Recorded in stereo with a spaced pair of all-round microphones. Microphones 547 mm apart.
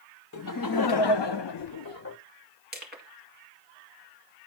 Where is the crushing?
15° right (ahead or behind), 2 m.